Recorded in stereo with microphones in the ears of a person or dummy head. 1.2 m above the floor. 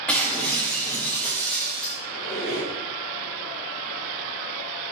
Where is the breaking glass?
10° left (ahead or behind), 2.5 m.